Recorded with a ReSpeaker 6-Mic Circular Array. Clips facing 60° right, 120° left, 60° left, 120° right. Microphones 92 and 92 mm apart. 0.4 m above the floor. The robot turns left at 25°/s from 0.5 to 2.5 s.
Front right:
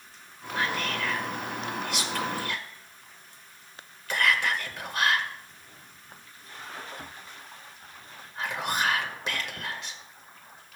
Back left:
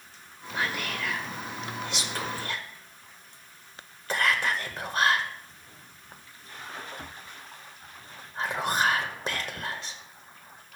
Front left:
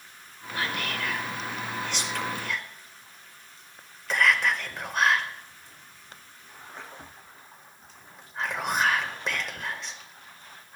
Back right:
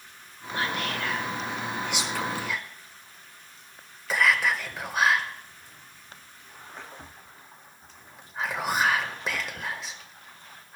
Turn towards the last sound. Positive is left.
turn(degrees=155)